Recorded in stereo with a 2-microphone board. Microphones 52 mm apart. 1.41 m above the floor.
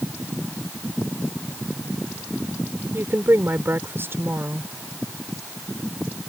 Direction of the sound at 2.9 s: 50° right (ahead or behind).